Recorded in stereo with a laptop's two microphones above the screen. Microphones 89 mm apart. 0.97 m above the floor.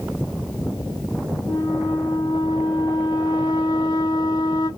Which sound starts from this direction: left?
A flute, at 1.5 s.